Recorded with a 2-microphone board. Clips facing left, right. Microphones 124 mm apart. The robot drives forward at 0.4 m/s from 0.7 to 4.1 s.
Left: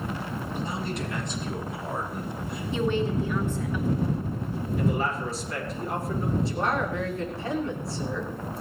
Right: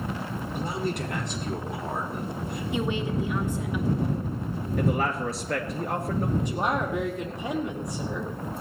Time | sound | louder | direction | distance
0.5 | a man speaking | right 3 dB | 55° right (ahead or behind) | 6 m
2.7 | a woman speaking | left 3 dB | 15° right (ahead or behind) | 3 m
4.8 | a man speaking | right 2 dB | 65° right (ahead or behind) | 3 m
6.4 | a woman speaking | even | 20° right (ahead or behind) | 5 m